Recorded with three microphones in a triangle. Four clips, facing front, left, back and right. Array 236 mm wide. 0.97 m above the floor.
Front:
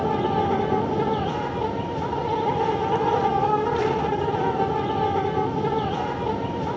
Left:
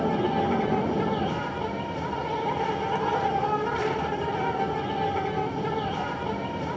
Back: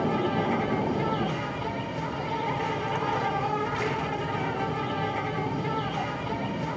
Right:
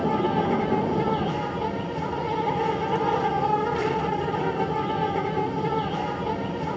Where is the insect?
30° right, 1.2 m.